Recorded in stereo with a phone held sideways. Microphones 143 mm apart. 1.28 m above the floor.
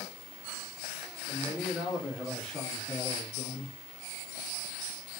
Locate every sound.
1.3 s a man speaking: 15° right (ahead or behind), 1.8 m; by 3.8 s 20° left (ahead or behind), 3 m